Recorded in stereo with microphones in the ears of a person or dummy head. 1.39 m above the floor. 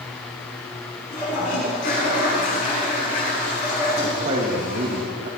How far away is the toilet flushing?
About 5.5 m.